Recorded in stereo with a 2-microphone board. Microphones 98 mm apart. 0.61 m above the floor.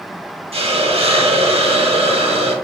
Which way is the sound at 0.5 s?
65° right (ahead or behind).